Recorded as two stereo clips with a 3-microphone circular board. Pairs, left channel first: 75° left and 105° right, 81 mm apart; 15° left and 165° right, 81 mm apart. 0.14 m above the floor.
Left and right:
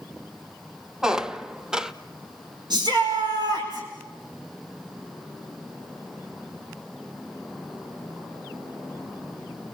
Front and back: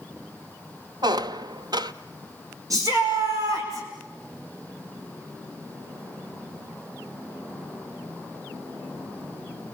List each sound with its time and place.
1.0 s a squeak: 170° left, 0.5 m
2.7 s a shout: 125° right, 7.5 m